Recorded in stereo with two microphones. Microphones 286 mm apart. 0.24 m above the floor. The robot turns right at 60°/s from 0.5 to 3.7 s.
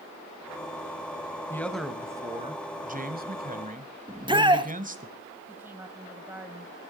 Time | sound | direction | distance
1.5 | a man speaking | 10° left (ahead or behind) | 1.3 m
4.1 | a shout | 15° right (ahead or behind) | 1.1 m
5.5 | a woman speaking | 5° right (ahead or behind) | 1.6 m